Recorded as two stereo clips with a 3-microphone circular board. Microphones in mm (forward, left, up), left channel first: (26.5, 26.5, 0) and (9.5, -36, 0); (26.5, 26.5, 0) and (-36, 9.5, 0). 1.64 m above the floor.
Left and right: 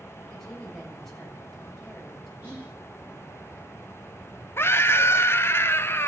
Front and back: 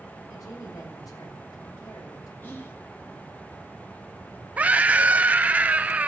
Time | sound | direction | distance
0.3 | a woman speaking | 10° right | 6.5 m
2.4 | whispering | 45° right | 2.5 m
4.6 | a scream | 125° left | 0.7 m